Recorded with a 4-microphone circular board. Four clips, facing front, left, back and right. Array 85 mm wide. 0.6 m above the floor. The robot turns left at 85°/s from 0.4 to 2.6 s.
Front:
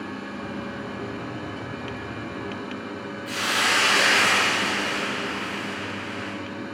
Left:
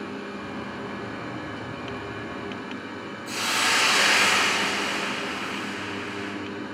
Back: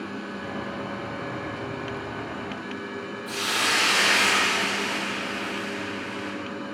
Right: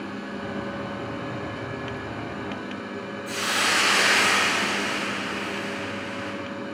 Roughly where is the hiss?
Ahead right.